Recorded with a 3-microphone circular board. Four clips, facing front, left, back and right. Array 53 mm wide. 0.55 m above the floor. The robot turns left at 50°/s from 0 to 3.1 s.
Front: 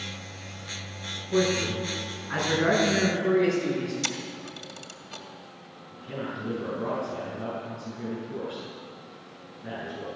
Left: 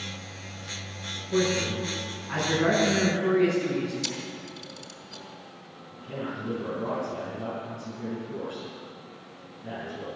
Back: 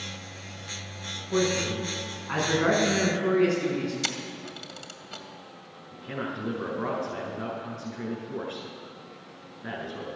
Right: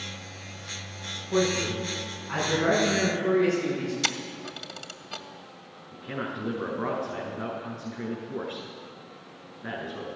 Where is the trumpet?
No trumpet in this recording.